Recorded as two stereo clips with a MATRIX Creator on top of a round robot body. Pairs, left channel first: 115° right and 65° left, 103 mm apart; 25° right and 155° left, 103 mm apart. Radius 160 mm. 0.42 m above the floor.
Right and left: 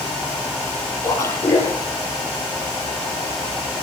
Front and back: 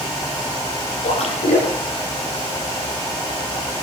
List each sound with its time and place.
1.0 s a splash: 45° right, 9 m